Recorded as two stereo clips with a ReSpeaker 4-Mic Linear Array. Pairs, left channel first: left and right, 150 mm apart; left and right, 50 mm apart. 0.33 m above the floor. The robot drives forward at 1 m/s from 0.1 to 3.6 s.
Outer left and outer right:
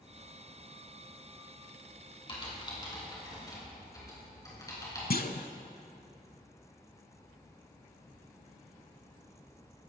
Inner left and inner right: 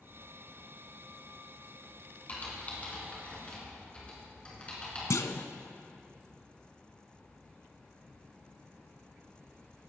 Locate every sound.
2.3 s typing on a keyboard: 35° left (ahead or behind), 3 m; by 5.0 s 25° left (ahead or behind), 4 m
5.1 s a clunk: 80° left, 0.6 m